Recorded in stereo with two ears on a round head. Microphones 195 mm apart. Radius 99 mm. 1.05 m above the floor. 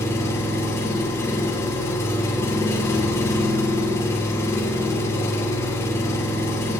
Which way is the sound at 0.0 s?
15° left (ahead or behind).